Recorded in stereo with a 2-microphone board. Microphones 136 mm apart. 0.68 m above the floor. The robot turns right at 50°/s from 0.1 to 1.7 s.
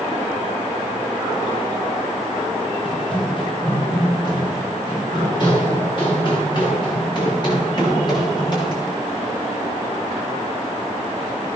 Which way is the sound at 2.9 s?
40° left (ahead or behind).